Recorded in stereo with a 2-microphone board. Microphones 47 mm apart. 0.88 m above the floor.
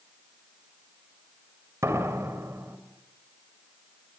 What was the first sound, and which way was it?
A door slam, 85° right.